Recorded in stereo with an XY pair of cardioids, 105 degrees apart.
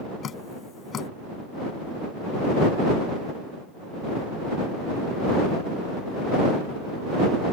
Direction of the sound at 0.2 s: 55° left.